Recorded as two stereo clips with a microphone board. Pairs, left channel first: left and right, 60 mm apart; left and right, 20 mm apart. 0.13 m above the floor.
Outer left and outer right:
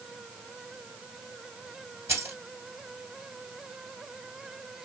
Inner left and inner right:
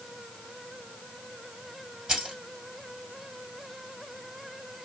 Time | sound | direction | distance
2.1 | keys jangling | 45° right (ahead or behind) | 1.5 m